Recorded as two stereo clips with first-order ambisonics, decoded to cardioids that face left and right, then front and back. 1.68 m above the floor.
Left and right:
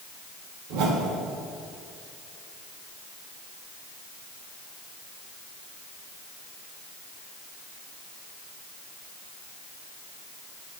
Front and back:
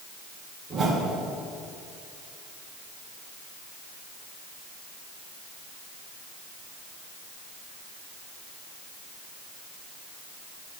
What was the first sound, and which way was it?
A whoosh, 110° right.